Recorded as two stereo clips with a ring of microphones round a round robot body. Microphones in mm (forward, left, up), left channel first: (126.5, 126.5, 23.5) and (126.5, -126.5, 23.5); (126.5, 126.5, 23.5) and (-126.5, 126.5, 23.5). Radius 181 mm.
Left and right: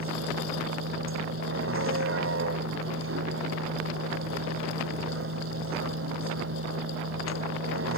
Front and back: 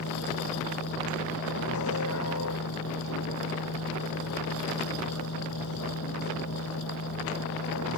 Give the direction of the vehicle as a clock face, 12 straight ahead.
2 o'clock.